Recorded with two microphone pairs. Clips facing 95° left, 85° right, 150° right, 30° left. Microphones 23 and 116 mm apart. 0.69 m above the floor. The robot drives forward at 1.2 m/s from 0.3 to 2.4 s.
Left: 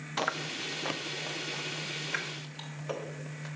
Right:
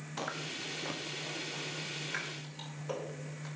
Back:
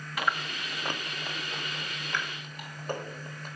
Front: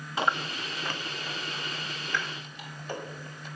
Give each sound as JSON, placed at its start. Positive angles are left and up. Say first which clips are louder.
{"t": 0.2, "sound": "chewing", "louder": "left 6 dB, front 3 dB", "azimuth_deg": 70, "distance_m": 0.7}